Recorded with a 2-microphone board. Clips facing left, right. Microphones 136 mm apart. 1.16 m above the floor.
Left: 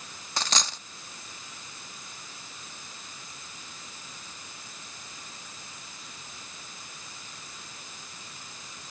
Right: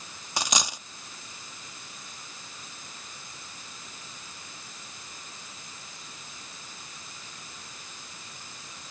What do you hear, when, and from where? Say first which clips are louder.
0.4 s a dropped coin: right 1 dB; 15° right (ahead or behind)